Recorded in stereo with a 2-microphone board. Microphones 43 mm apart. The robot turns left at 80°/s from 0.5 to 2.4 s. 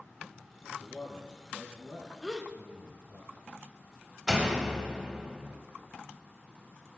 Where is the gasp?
5° right (ahead or behind), 1.0 m; by 2.5 s 10° left (ahead or behind), 1.0 m.